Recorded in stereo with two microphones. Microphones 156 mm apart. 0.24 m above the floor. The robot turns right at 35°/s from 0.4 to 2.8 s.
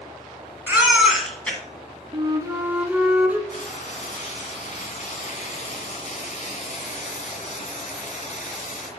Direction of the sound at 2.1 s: 35° right (ahead or behind).